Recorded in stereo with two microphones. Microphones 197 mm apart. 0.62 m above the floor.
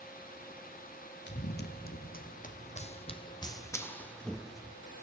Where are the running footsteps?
65° left (ahead or behind), 1.6 m; by 4.8 s 5° right (ahead or behind), 1.6 m.